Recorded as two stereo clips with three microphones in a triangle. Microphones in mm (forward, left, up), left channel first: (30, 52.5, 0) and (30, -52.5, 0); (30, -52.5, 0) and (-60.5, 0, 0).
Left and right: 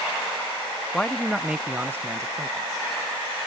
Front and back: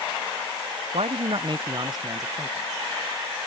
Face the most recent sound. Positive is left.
turn(degrees=-145)